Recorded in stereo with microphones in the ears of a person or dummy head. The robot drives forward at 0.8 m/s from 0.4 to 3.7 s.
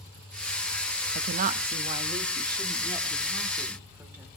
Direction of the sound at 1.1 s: 55° right (ahead or behind).